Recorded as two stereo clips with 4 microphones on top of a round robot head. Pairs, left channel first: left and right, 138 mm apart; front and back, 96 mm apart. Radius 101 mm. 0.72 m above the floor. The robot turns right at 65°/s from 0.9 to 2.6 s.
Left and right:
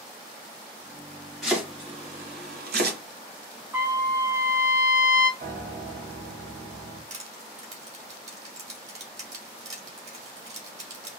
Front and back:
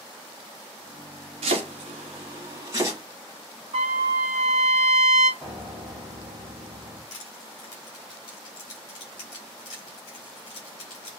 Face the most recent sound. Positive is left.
turn(degrees=-55)